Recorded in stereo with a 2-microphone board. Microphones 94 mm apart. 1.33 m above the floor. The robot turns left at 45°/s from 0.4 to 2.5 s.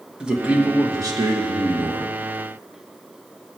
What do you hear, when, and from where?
0.2 s a man speaking: 10° right, 1.7 m; by 2.1 s 85° right, 1.7 m